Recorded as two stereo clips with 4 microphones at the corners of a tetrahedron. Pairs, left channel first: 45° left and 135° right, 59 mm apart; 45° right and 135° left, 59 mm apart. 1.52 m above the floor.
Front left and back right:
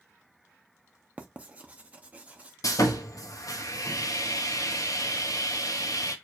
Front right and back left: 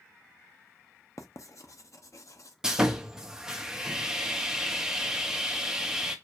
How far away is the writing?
About 0.6 m.